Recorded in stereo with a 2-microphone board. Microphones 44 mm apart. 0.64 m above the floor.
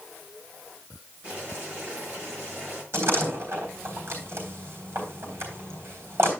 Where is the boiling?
25° right (ahead or behind), 7.5 m.